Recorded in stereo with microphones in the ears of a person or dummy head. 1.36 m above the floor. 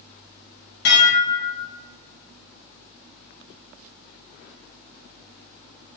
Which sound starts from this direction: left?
Dishes clattering, at 0.8 s.